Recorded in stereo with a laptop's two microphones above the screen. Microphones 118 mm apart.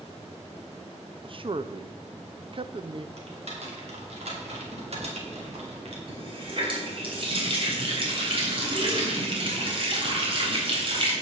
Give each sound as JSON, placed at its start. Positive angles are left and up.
{"t": 1.2, "sound": "a man speaking", "side_deg": -50, "distance_m": 0.7}
{"t": 3.2, "sound": "typing on a keyboard", "side_deg": -65, "distance_m": 2.5}
{"t": 6.1, "sound": "a running tap", "side_deg": -50, "distance_m": 3.5}